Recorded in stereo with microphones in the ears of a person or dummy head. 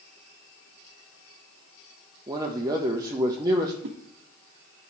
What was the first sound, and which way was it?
A man speaking, 20° right (ahead or behind).